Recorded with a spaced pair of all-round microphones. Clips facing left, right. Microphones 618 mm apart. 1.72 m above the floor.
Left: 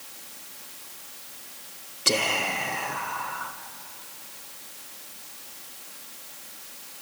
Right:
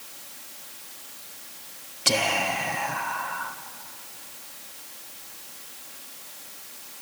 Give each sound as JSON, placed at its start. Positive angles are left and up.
{"t": 2.0, "sound": "whispering", "side_deg": -20, "distance_m": 1.2}